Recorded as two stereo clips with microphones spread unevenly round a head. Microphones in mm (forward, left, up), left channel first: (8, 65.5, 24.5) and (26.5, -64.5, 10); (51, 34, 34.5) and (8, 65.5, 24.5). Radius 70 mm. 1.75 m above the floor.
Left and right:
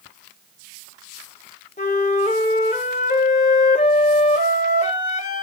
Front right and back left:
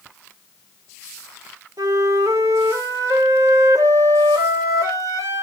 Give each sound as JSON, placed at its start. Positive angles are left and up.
{"t": 1.8, "sound": "a flute", "azimuth_deg": 135, "distance_m": 1.4}